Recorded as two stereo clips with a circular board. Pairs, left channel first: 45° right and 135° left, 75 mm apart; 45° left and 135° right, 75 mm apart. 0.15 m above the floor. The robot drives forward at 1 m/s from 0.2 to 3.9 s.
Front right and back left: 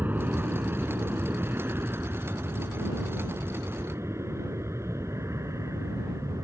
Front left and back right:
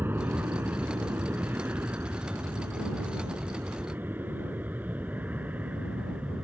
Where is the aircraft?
Straight behind; by 6.5 s 160° left.